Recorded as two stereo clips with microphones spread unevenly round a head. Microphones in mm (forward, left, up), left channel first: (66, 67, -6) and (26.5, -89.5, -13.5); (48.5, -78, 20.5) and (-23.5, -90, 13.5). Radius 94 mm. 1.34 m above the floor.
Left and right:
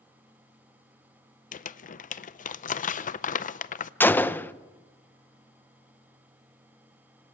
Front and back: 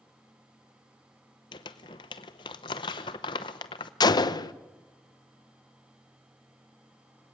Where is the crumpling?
40° left, 0.7 m.